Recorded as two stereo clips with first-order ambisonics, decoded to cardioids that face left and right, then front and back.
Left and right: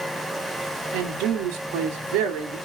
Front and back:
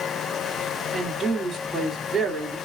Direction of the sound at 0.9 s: 100° right.